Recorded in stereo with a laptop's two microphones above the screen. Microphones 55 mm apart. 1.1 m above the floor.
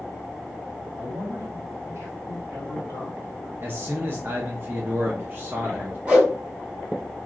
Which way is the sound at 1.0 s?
60° right (ahead or behind).